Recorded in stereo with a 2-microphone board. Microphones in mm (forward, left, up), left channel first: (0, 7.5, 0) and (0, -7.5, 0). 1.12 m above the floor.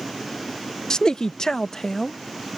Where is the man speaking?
50° left (ahead or behind); by 2.2 s 40° left (ahead or behind).